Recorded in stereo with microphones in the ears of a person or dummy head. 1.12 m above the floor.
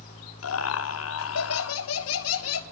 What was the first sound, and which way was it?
Laughter, 75° left (ahead or behind).